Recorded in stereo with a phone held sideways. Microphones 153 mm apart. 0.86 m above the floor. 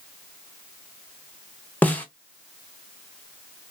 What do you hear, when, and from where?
1.8 s a snare drum: 10° left (ahead or behind), 0.6 m